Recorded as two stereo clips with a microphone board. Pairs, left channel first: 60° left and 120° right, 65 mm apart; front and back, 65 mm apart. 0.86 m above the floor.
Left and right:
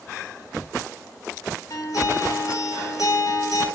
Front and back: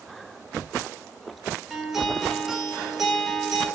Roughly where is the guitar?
Left.